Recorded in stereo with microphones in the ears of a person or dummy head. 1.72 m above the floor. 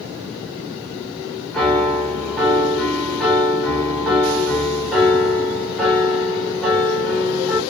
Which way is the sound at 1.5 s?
5° left (ahead or behind).